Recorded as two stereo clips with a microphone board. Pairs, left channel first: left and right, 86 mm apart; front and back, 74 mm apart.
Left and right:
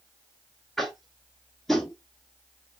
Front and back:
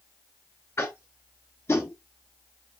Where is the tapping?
Straight ahead, 0.6 m.